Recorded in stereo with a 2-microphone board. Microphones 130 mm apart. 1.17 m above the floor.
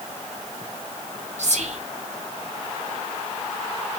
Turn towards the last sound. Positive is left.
turn(degrees=-60)  # may be behind; listen again after turning